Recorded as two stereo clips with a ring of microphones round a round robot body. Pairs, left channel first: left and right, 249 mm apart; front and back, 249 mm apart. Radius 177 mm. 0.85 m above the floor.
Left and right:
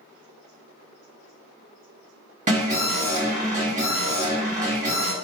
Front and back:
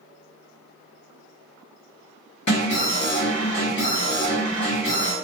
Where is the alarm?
30° right, 1.5 m.